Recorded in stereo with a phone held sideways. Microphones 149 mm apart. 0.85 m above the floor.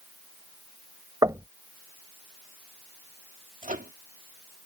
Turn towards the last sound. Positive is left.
turn(degrees=-70)  # may be behind; listen again after turning